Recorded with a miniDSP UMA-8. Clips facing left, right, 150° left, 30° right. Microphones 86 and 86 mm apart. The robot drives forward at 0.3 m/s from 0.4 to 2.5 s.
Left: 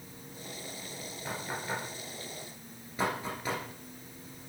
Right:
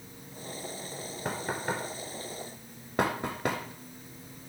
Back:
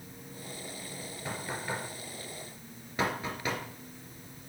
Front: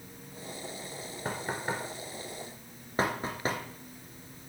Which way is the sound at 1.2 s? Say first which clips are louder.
Right 4 dB, front 3 dB; 65° right.